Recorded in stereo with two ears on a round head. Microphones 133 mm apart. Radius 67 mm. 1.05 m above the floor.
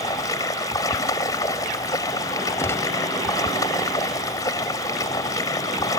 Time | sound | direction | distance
0.0 | running water | 25° left (ahead or behind) | ?
2.6 | a gunshot | 20° left (ahead or behind) | ?